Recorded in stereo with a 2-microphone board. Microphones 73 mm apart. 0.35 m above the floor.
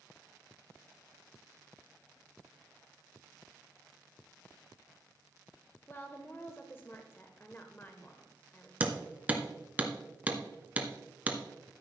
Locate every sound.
5.9 s a woman speaking: 30° left (ahead or behind), 0.9 m
8.8 s hammering: 20° right (ahead or behind), 1.2 m